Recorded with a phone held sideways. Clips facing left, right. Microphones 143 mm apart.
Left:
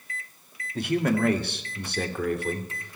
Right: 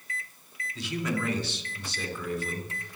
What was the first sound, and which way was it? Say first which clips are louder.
A man speaking: left 7 dB; 55° left (ahead or behind).